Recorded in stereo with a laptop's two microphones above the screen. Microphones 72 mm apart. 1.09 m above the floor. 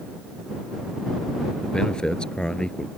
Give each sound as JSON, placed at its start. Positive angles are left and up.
{"t": 1.6, "sound": "a man speaking", "side_deg": 10}